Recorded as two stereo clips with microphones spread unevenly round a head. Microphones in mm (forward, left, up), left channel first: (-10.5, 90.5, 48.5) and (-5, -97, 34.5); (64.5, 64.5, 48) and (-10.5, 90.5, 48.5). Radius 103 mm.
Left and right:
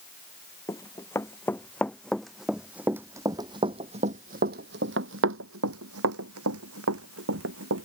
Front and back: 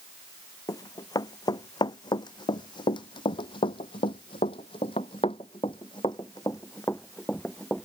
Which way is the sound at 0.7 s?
20° left.